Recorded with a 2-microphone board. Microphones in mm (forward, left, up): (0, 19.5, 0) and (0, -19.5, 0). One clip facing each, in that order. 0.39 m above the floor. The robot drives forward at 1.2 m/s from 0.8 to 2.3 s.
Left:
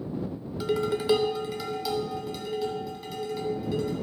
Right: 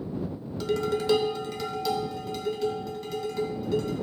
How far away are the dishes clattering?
About 0.8 m.